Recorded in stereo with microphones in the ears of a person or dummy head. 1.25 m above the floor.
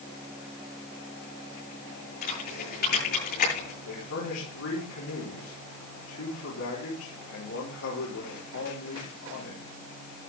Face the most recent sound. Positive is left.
turn(degrees=85)